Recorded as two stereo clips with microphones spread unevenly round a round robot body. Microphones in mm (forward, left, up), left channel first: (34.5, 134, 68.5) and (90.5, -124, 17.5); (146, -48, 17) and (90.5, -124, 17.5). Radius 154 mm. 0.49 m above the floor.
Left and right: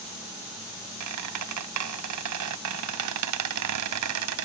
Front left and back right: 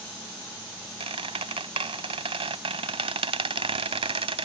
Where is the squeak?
105° right.